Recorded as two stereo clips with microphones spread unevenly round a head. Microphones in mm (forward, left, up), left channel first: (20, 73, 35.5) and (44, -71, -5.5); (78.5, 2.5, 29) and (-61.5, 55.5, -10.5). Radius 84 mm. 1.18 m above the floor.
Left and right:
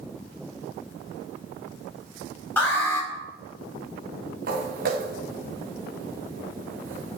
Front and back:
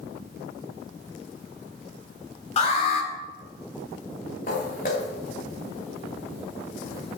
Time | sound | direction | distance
2.6 | an alarm | 25° left | 5.5 m
4.5 | footsteps | 60° right | 5 m